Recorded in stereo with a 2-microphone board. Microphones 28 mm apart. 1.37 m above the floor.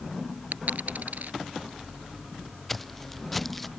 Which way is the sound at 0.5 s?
80° right.